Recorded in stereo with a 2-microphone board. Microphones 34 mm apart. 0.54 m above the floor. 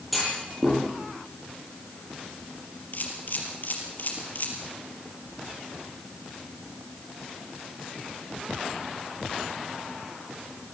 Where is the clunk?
5° right (ahead or behind), 8.5 m.